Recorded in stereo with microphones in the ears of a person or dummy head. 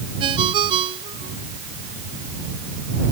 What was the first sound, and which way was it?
A ringtone, 30° right (ahead or behind).